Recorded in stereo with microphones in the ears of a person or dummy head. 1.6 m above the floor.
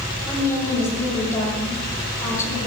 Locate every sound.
0.2 s a woman speaking: 15° left (ahead or behind), 5 m